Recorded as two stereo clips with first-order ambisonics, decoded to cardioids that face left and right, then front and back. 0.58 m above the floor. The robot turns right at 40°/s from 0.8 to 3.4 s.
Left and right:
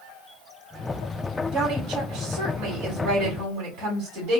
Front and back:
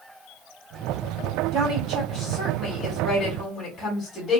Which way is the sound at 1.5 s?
145° right.